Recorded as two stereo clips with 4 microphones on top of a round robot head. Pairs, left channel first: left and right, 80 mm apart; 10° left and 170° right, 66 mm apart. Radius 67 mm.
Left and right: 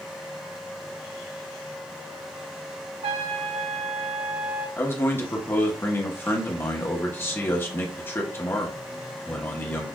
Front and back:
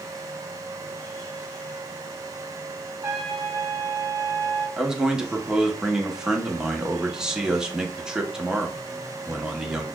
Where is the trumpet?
105° right, 1.6 m.